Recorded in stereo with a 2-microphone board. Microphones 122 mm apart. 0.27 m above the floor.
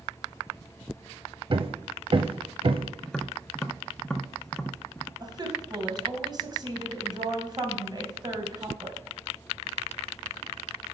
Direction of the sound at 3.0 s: 5° left (ahead or behind).